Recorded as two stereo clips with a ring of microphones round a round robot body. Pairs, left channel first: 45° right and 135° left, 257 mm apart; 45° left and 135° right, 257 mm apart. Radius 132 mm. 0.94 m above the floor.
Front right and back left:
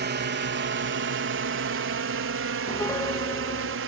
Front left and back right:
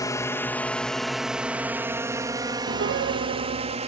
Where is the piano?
120° right.